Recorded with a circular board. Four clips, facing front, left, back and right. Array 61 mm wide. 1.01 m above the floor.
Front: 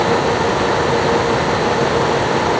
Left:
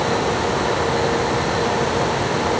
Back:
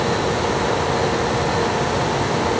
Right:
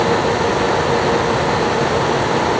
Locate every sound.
Only background noise.